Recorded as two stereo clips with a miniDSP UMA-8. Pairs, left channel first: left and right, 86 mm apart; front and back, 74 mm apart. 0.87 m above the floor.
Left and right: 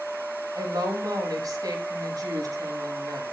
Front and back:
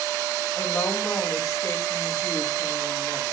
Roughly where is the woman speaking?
Ahead right.